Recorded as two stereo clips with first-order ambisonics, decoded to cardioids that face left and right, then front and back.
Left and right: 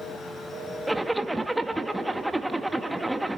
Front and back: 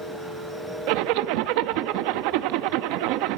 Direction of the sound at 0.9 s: 175° right.